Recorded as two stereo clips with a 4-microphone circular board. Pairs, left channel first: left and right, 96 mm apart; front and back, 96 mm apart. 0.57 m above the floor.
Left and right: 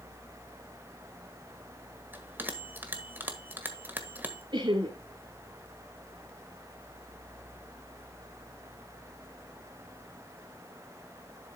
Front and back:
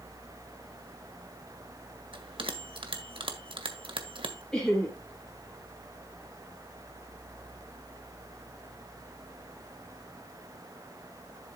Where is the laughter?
80° right, 1.9 m.